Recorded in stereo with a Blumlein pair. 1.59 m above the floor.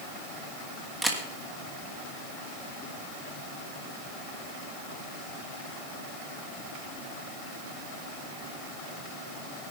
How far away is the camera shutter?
About 2.5 m.